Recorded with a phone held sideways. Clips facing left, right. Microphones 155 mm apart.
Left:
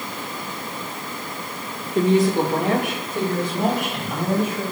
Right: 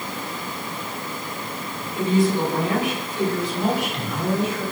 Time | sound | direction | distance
1.9 | a woman speaking | 75° left (ahead or behind) | 2 m